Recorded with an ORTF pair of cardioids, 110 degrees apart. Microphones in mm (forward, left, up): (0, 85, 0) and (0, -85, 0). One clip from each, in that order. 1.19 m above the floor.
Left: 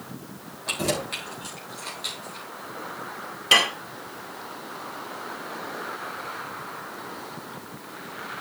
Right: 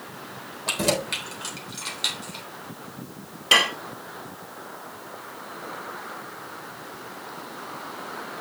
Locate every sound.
0.7 s keys jangling: 35° right, 3.5 m; by 2.5 s 65° right, 3.5 m
3.5 s dishes clattering: straight ahead, 1.3 m